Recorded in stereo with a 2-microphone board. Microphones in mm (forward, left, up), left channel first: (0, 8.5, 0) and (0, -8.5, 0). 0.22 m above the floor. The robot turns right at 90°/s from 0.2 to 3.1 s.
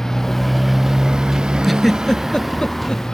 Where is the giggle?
5° right (ahead or behind); by 3.0 s 55° left (ahead or behind).